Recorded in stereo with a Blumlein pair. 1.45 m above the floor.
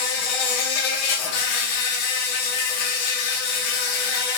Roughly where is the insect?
Ahead left.